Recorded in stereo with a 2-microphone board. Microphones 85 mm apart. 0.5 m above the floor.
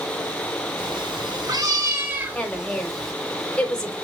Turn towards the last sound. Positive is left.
turn(degrees=10)  # may be behind; listen again after turning